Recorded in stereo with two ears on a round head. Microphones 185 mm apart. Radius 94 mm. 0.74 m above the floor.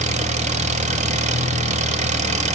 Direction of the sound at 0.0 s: 35° right (ahead or behind).